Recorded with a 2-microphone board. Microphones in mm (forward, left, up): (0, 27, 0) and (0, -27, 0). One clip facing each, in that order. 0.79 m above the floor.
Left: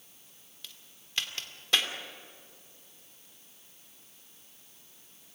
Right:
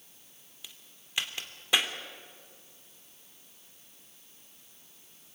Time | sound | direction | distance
0.6 | a crack | 15° right (ahead or behind) | 2 m